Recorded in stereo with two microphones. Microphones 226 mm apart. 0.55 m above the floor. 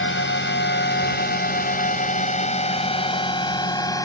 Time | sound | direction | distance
0.0 | a drone | 60° left (ahead or behind) | ?